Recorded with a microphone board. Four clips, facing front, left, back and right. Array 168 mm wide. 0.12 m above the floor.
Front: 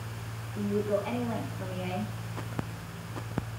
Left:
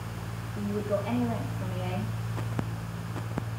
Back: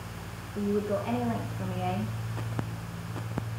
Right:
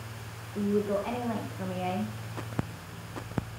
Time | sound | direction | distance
0.6 | a woman speaking | 95° right | 5 m